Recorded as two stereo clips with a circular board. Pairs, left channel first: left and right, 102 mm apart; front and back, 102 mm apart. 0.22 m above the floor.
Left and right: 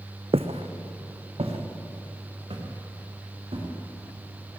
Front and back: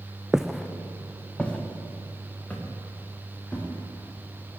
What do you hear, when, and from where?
0.3 s footsteps: 95° right, 0.8 m; by 3.6 s 75° right, 5.5 m